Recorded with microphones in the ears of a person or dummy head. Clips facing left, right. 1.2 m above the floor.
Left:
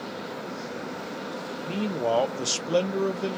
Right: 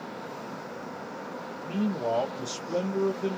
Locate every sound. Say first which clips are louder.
1.6 s a man speaking: left 1 dB; 15° left (ahead or behind), 0.5 m; by 3.4 s 75° left (ahead or behind), 0.9 m